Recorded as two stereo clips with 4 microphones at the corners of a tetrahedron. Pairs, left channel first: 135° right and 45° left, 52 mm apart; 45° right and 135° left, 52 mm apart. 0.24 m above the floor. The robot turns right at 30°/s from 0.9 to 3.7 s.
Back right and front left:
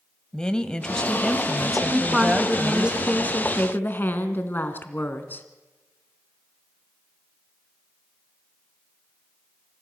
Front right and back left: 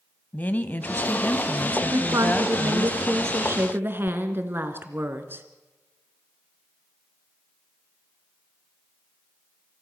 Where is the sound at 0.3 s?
70° right, 1.5 m; by 2.9 s 10° right, 1.5 m.